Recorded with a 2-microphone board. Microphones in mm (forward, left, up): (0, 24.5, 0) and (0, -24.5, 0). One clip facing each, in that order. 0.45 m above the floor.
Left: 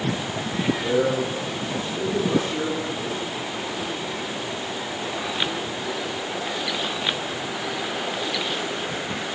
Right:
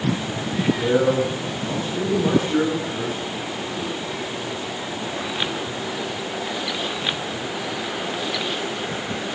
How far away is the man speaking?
About 6.5 m.